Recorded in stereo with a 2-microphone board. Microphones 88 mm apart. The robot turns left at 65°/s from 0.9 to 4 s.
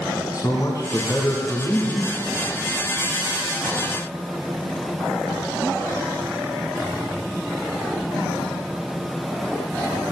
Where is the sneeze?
I don't hear a sneeze.